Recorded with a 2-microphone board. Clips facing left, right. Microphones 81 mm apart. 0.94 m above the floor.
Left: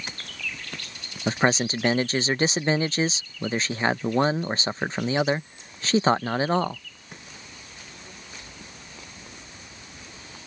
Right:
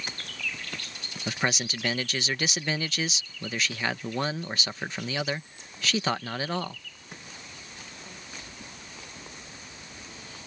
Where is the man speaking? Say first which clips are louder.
Left 7 dB; 30° left (ahead or behind).